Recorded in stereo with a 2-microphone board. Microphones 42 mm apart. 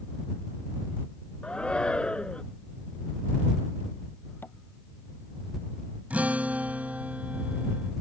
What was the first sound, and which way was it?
A shout, 25° left (ahead or behind).